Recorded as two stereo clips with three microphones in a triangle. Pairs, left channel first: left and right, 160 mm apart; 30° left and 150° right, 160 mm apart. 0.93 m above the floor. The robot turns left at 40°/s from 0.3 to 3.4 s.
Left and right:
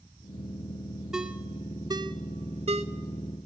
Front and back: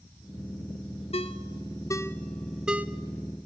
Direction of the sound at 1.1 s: 5° right.